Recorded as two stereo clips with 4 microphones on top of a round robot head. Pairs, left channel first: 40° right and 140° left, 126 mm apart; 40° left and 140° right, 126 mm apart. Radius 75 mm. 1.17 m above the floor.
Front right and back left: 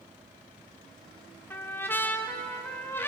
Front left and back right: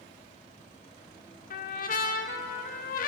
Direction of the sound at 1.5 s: 35° left.